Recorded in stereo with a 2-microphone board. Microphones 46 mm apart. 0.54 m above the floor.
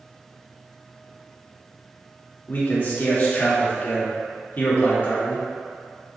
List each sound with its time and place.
2.5 s a man speaking: 45° left (ahead or behind), 1.1 m